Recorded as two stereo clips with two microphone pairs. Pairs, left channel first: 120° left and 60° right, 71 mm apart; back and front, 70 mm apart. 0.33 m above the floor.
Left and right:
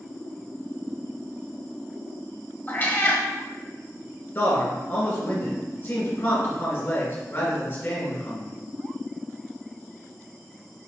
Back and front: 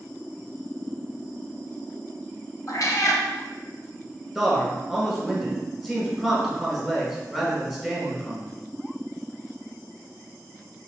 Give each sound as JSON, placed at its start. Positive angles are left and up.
{"t": 2.7, "sound": "a cat meowing", "azimuth_deg": 170, "distance_m": 0.7}
{"t": 4.3, "sound": "a man speaking", "azimuth_deg": 95, "distance_m": 1.7}